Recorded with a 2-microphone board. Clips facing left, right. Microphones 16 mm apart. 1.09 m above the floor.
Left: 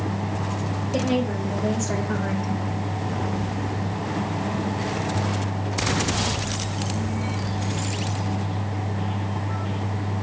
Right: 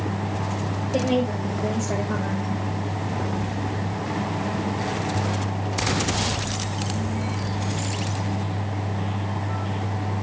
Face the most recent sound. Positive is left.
turn(degrees=40)  # may be behind; listen again after turning